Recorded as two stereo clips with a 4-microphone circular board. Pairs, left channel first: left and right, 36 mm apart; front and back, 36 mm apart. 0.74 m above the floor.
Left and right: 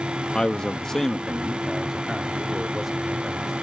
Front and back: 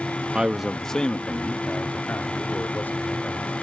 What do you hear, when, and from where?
0.3 s a man speaking: 145° left; by 3.5 s 5° right